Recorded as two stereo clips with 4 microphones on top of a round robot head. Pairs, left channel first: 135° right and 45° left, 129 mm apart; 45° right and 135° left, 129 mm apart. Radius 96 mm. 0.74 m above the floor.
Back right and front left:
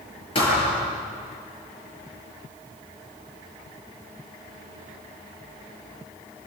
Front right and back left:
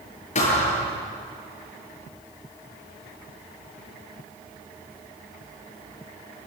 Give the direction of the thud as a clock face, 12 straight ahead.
3 o'clock.